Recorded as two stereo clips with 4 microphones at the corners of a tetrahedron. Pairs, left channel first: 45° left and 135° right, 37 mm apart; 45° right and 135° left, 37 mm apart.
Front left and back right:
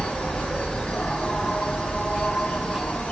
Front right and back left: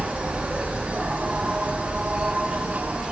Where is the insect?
90° left, 3.5 m.